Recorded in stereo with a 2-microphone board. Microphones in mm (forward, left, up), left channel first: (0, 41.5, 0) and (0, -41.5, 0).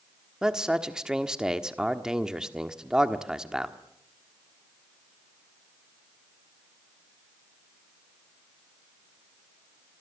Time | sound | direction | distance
0.4 | a man speaking | 10° right (ahead or behind) | 1.4 m